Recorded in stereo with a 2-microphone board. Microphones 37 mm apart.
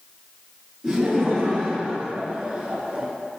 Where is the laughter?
10° right (ahead or behind), 2.0 m; by 3.1 s 30° right (ahead or behind), 1.3 m.